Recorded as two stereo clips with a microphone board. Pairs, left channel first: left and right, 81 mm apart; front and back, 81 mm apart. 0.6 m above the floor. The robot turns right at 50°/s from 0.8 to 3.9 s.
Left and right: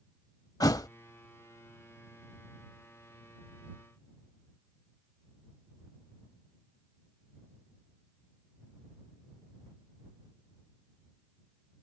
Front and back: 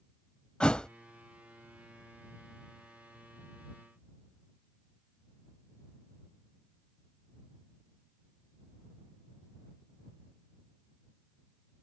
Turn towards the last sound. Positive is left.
turn(degrees=-130)